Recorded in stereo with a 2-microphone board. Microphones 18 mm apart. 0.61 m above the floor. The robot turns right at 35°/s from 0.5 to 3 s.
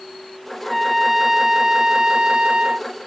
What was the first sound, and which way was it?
A trumpet, 175° left.